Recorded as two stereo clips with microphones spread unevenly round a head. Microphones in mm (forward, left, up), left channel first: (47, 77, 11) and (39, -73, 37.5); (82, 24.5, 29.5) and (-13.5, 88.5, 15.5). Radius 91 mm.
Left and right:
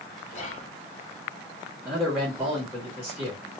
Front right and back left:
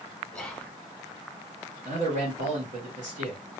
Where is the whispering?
50° left, 1.3 m.